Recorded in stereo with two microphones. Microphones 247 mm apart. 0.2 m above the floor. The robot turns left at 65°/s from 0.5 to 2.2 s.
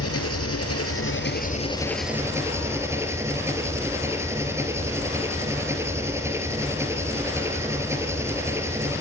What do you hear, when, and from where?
0.0 s an engine running: 100° left, 1.9 m; by 9.0 s 10° right, 1.9 m